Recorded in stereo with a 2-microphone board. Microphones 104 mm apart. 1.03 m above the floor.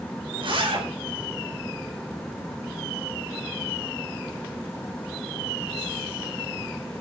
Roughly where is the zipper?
Right.